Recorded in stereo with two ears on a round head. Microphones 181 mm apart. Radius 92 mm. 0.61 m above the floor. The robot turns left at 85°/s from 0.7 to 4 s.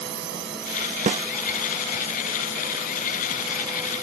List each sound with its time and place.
0.0 s a drone: 105° right; by 4.0 s 25° right
1.1 s a snare drum: 40° right (ahead or behind); by 1.2 s 25° right (ahead or behind)